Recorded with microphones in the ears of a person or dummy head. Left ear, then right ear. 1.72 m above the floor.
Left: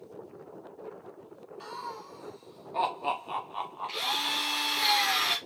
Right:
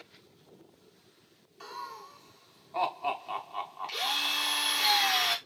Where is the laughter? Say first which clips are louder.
Left 2 dB; 10° right (ahead or behind), 1.2 m.